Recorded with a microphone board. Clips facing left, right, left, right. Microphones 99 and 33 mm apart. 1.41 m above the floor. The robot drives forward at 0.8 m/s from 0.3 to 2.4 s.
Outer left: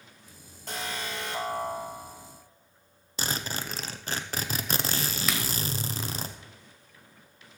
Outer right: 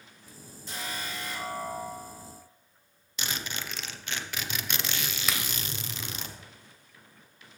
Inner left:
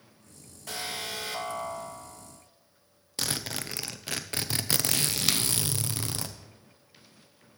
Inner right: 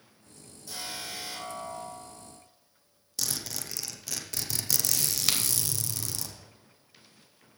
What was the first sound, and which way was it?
An alarm, 60° left (ahead or behind).